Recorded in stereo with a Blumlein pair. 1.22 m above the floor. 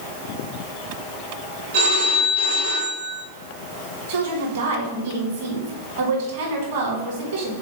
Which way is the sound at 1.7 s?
70° right.